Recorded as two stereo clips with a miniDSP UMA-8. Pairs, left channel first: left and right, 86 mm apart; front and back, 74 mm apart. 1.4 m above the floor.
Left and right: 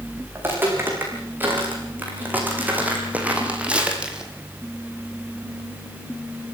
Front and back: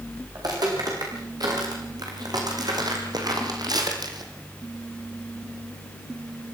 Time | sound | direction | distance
0.3 | footsteps | 155° right | 6.5 m